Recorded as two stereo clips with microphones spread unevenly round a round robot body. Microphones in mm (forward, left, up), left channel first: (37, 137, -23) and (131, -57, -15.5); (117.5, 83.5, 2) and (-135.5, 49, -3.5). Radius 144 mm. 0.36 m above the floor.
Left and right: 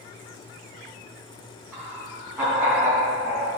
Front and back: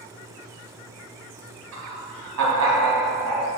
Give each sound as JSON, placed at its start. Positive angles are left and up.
{"t": 1.7, "sound": "laughter", "azimuth_deg": -150, "distance_m": 3.0}